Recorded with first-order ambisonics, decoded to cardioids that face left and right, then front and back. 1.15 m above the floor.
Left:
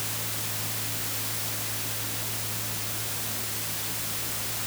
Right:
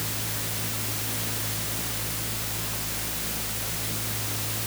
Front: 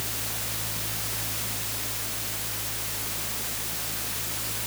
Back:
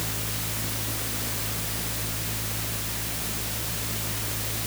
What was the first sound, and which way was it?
Only background noise.